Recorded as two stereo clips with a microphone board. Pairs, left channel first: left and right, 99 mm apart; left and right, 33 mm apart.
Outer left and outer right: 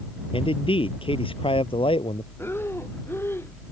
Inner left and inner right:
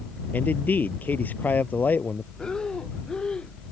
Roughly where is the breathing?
Left.